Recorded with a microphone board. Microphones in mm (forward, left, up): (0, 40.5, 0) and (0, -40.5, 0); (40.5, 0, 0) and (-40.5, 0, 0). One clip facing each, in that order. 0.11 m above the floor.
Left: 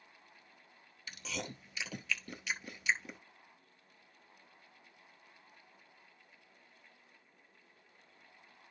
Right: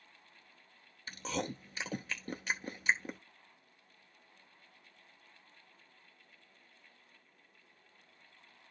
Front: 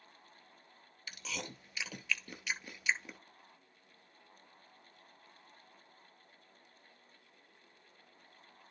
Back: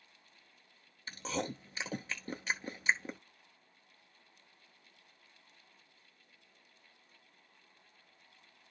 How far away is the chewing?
About 0.9 m.